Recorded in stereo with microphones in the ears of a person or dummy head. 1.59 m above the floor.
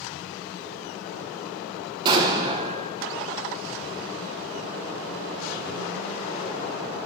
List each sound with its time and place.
2.0 s an explosion: 25° right (ahead or behind), 1.0 m